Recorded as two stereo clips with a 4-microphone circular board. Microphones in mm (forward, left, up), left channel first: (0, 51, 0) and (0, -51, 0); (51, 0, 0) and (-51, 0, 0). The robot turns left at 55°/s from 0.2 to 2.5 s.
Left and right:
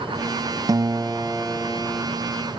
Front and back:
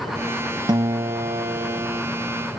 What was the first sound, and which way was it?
A guitar, 140° right.